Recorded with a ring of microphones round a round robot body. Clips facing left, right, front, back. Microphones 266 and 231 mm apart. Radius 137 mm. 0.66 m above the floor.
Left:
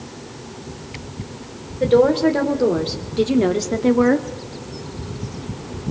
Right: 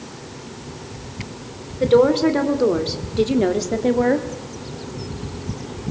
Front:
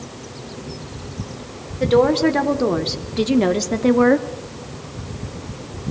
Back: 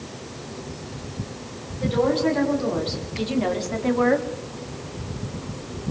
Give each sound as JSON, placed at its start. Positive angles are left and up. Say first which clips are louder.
{"t": 1.8, "sound": "a woman speaking", "louder": "even, front 6 dB", "azimuth_deg": -10, "distance_m": 2.5}